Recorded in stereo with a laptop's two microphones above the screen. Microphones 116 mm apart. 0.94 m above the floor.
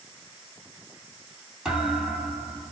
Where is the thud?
5° right (ahead or behind), 1.4 m.